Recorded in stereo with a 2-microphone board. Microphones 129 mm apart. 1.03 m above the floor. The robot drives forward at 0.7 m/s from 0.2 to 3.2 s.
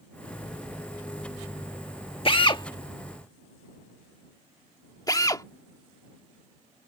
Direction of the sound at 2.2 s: 45° left (ahead or behind).